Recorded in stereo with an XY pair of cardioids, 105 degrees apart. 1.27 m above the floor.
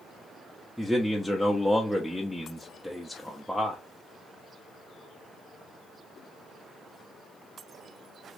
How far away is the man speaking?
About 0.6 m.